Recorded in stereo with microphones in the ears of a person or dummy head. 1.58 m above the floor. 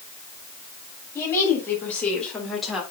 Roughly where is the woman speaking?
Centre.